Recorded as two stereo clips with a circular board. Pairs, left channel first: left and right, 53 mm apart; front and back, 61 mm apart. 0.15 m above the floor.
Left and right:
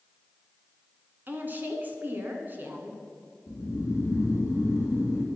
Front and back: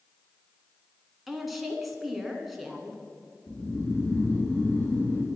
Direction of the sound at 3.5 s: 60° left.